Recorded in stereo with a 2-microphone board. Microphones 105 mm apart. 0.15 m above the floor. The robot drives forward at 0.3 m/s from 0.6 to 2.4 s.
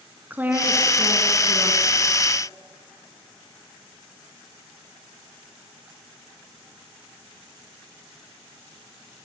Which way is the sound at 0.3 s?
15° right (ahead or behind).